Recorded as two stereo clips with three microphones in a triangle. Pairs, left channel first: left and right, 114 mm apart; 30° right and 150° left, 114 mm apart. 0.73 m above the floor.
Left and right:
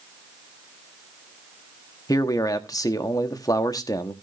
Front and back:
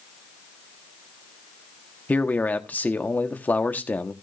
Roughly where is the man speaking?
Ahead left.